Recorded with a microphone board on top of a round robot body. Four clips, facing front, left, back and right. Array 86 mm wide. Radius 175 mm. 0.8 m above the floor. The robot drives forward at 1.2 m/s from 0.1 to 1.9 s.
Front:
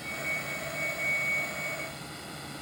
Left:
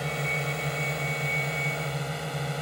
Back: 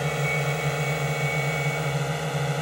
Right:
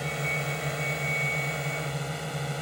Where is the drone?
Straight behind.